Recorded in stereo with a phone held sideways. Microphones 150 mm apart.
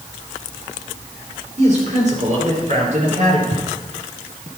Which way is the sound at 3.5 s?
45° right (ahead or behind).